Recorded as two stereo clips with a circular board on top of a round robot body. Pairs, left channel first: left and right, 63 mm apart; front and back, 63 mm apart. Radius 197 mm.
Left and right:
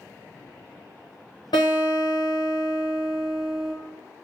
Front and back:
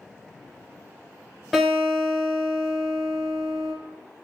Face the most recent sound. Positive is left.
turn(degrees=85)